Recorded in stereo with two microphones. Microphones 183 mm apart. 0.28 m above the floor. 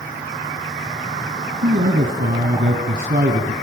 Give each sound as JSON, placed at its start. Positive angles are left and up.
{"t": 1.6, "sound": "a man speaking", "side_deg": -55, "distance_m": 1.8}